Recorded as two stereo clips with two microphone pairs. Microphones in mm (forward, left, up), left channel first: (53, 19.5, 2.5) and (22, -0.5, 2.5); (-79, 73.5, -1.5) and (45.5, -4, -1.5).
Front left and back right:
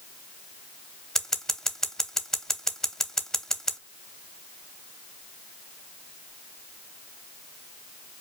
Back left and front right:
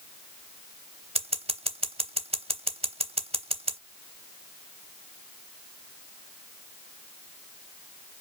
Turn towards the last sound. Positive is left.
turn(degrees=-35)